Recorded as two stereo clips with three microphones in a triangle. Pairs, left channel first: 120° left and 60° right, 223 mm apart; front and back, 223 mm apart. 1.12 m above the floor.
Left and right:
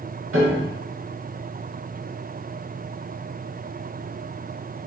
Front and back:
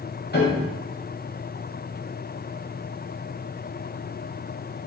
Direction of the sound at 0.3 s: 45° right.